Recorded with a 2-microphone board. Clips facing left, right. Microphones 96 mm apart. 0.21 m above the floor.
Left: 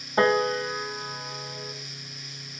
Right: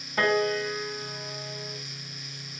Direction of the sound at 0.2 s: 30° left (ahead or behind).